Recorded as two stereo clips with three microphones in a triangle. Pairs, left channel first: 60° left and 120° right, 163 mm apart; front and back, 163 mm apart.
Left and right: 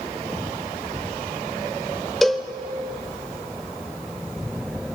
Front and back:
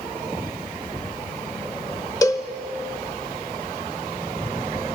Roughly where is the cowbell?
Ahead right.